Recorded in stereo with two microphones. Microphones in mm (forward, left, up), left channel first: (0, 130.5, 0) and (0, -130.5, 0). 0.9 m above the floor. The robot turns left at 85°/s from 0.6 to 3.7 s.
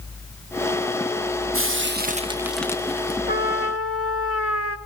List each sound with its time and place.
1.5 s frying: 90° right, 1.0 m; by 3.2 s 130° left, 1.0 m
3.3 s a trumpet: 140° left, 1.0 m; by 4.8 s 105° left, 1.0 m